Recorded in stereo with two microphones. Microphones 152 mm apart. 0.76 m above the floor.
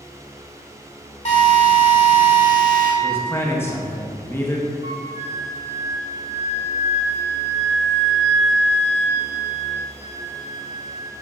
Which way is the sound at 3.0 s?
15° left (ahead or behind).